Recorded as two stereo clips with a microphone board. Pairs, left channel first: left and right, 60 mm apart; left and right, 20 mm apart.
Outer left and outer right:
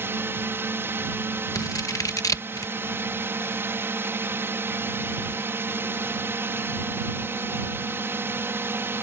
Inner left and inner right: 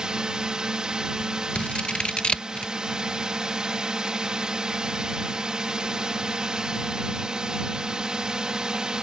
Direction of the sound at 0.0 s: 40° right (ahead or behind).